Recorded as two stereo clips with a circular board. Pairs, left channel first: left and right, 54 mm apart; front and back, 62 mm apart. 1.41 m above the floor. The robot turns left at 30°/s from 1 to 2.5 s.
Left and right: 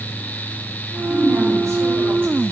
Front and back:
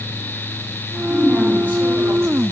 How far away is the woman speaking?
About 6.5 m.